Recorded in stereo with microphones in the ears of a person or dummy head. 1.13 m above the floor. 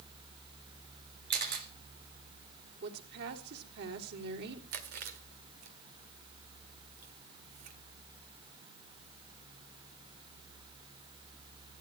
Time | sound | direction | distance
1.3 | a camera shutter | 55° right (ahead or behind) | 3 m
2.8 | a woman speaking | 60° right (ahead or behind) | 3 m
4.7 | chewing | 50° right (ahead or behind) | 1.3 m